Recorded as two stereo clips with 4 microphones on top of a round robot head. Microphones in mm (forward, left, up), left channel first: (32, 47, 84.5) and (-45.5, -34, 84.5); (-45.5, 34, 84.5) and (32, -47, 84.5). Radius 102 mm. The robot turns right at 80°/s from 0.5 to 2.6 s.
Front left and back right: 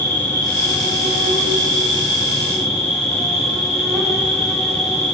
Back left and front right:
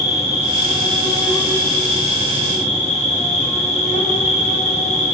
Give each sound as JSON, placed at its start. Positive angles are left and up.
{"t": 0.0, "sound": "an insect", "azimuth_deg": -25, "distance_m": 6.0}